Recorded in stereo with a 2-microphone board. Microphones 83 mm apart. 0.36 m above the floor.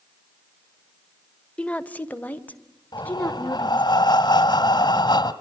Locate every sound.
1.6 s a woman speaking: 15° left (ahead or behind), 0.8 m; by 3.9 s 20° left (ahead or behind), 4 m
2.9 s breathing: 60° left (ahead or behind), 1.4 m